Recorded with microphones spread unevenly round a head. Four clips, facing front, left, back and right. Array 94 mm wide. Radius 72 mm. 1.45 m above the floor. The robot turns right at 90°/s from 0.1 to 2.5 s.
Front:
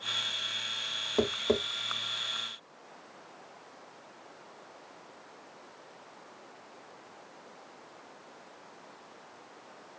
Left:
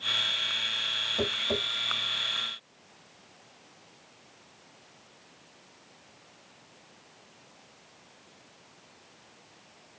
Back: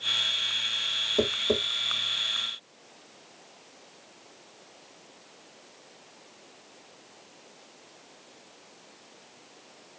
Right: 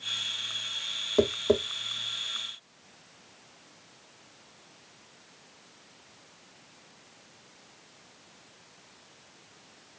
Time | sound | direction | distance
1.2 | tapping | 80° right | 1.0 m